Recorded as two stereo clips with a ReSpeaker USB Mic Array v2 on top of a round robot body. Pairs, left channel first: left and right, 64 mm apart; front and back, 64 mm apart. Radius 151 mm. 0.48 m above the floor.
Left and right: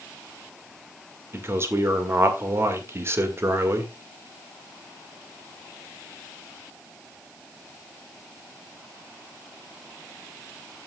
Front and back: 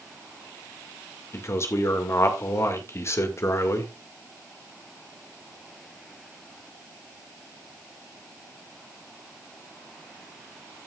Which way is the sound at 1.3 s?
45° right.